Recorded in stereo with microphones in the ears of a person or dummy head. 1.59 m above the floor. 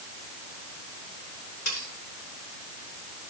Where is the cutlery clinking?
55° left (ahead or behind), 9 m.